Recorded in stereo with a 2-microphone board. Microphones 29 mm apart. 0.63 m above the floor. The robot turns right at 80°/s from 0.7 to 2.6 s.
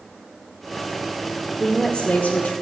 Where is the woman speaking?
15° left, 1.4 m; by 2.5 s 90° left, 1.4 m.